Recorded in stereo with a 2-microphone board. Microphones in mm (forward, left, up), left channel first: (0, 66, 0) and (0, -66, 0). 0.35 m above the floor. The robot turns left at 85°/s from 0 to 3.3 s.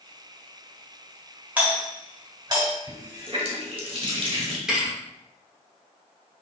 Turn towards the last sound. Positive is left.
turn(degrees=-5)  # may be behind; listen again after turning